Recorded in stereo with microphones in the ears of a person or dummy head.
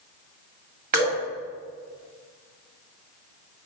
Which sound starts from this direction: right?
Dripping, at 0.9 s.